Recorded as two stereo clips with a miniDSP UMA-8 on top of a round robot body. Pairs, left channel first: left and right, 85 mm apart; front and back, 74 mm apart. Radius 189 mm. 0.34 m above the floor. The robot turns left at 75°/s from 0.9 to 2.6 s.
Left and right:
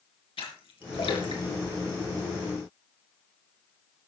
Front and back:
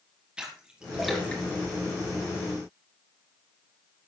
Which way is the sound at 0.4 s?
105° left.